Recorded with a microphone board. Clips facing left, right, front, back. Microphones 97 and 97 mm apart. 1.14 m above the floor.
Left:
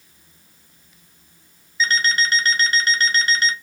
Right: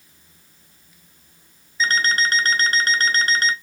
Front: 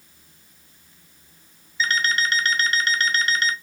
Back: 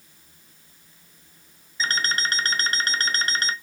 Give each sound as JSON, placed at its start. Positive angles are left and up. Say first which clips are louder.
{"t": 1.8, "sound": "an alarm clock", "louder": "even, front 3 dB", "azimuth_deg": -130, "distance_m": 0.7}